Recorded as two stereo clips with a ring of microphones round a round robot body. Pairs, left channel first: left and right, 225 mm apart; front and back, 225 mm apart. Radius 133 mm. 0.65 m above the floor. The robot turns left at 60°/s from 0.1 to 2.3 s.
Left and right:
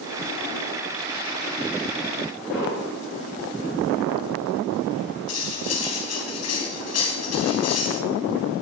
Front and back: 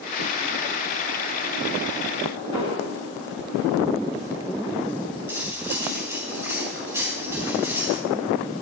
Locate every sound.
2.5 s an explosion: straight ahead, 9.5 m
5.3 s cutlery clinking: 100° left, 3 m